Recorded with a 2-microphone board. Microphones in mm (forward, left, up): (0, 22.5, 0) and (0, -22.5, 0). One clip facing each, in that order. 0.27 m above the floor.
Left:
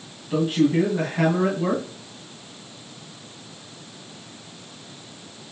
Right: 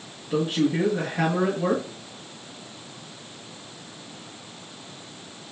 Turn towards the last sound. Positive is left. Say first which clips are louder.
# left 3 dB
turn(degrees=10)  # may be behind; listen again after turning